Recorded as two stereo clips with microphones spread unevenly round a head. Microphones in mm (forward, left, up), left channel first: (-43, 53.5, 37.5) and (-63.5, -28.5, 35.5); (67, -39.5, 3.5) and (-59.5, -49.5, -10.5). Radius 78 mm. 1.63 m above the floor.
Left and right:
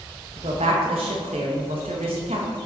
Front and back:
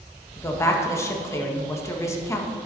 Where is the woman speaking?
60° right, 1.6 m.